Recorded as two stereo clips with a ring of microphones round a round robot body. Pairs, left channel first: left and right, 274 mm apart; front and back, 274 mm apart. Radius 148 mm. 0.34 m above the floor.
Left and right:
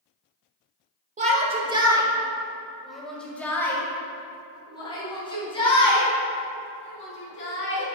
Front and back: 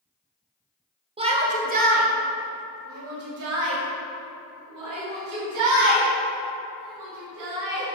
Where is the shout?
130° right, 1.6 m; by 7.8 s 155° left, 4.5 m.